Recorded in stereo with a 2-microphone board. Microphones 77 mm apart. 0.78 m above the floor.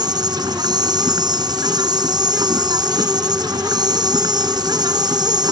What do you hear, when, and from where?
0.0 s an insect: 65° right (ahead or behind)